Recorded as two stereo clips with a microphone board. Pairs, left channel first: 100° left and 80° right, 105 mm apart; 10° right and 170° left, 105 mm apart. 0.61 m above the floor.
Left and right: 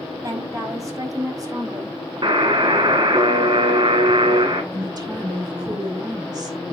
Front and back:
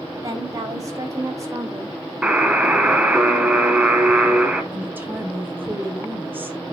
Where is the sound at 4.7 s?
120° right, 2.5 m.